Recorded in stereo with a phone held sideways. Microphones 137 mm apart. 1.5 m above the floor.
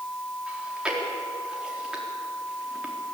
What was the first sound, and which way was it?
Chewing, 5° right (ahead or behind).